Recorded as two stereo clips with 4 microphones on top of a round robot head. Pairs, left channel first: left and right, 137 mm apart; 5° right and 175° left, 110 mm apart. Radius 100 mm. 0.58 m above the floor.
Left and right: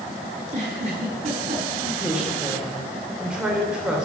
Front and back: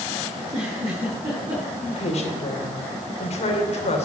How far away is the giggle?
About 6 m.